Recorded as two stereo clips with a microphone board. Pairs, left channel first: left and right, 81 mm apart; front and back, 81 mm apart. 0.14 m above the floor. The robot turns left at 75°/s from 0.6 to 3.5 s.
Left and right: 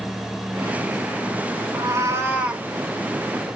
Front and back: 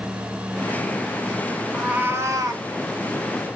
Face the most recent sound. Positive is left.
turn(degrees=125)